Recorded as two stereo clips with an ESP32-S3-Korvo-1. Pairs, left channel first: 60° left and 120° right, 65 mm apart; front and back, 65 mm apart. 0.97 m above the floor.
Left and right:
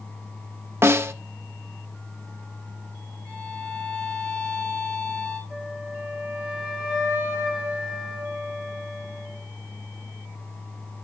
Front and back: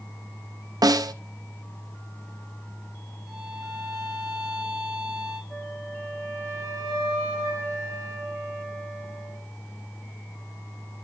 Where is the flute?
55° right, 3 m.